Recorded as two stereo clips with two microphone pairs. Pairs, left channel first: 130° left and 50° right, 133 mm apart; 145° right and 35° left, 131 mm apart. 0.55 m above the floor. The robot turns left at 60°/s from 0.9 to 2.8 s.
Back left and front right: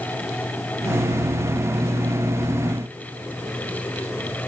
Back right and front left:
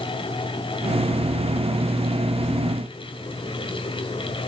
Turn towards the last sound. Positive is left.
No sound to turn to.